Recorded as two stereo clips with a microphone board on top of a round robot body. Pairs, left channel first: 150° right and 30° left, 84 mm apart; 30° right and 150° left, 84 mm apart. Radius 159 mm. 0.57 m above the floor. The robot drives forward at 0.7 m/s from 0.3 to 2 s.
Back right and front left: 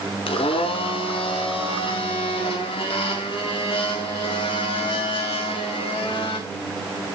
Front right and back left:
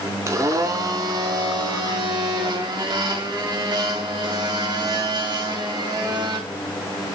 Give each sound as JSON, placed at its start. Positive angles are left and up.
{"t": 0.3, "sound": "a blender", "azimuth_deg": -155, "distance_m": 1.0}